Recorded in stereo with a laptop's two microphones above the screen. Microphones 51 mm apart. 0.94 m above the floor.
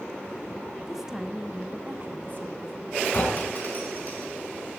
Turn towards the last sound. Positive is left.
turn(degrees=45)  # may be behind; listen again after turning